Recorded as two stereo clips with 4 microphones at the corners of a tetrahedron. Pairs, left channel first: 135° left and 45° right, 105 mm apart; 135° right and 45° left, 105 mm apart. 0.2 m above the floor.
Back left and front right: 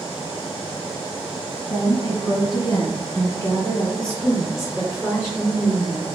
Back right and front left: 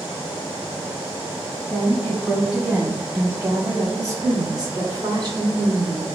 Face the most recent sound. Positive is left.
turn(degrees=30)